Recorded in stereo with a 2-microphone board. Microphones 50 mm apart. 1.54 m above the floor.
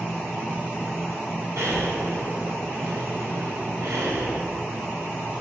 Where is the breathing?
80° right, 4 m.